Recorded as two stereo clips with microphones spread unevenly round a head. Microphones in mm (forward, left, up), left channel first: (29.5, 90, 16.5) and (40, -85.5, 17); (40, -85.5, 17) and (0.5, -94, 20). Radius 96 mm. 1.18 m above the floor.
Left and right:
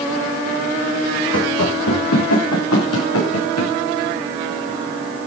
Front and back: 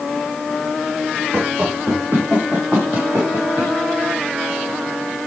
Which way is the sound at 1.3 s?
115° left.